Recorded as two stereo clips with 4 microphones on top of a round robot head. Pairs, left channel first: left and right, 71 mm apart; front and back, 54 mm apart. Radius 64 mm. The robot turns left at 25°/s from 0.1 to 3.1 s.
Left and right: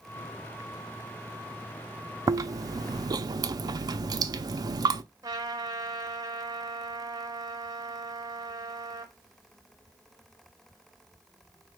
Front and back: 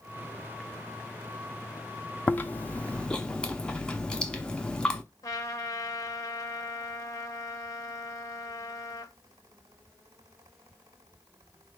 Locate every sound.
2.3 s chewing: 55° right, 0.5 m; by 5.0 s 75° right, 0.5 m
5.2 s a trumpet: 40° right, 0.9 m